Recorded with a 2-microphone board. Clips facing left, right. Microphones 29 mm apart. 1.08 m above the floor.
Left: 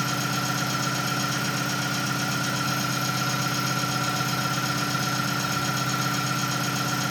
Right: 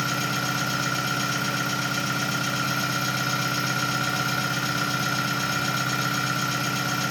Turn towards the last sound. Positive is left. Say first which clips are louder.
# right 1 dB
turn(degrees=-35)  # may be behind; listen again after turning